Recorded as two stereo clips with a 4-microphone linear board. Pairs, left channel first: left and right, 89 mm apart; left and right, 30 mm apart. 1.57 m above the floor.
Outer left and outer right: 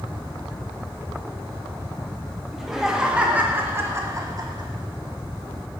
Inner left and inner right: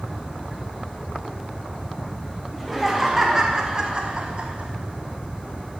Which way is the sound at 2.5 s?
Centre (ahead or behind).